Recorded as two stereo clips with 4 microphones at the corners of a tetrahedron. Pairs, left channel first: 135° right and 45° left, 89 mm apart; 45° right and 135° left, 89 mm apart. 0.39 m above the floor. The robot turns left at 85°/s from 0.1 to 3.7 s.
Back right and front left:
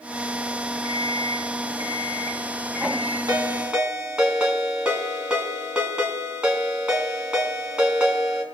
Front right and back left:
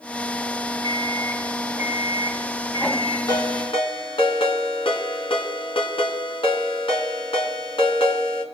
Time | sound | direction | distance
0.8 | an alarm clock | 90° right | 3.5 m
3.3 | a ringtone | straight ahead | 2.5 m